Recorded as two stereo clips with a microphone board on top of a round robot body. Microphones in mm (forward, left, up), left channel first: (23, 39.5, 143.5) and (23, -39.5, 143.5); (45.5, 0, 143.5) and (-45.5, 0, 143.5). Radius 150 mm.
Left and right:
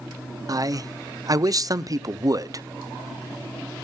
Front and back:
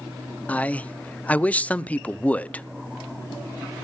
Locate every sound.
0.5 s a man speaking: 70° right, 0.9 m